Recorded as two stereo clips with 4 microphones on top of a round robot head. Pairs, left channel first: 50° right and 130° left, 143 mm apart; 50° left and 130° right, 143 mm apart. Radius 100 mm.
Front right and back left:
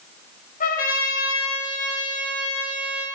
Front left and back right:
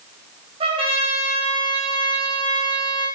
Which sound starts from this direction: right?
A trumpet, at 0.6 s.